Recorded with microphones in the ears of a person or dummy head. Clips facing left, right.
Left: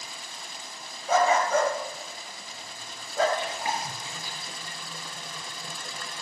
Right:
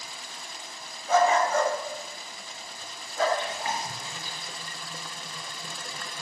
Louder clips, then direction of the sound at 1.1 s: Even; 75° left (ahead or behind).